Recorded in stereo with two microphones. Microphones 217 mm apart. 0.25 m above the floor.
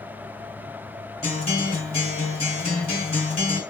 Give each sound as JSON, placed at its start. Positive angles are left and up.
{"t": 1.2, "sound": "a guitar", "side_deg": 30, "distance_m": 2.5}